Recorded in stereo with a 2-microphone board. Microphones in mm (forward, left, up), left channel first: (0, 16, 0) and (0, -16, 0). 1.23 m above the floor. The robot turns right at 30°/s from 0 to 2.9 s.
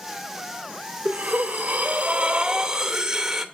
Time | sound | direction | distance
1.1 | breathing | 75° right | 0.8 m